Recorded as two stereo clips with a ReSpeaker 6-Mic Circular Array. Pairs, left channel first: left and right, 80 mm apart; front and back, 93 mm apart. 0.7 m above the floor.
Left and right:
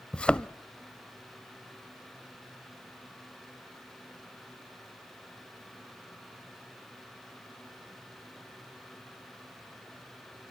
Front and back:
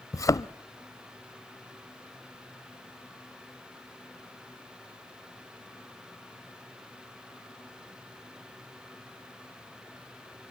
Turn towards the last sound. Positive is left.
turn(degrees=20)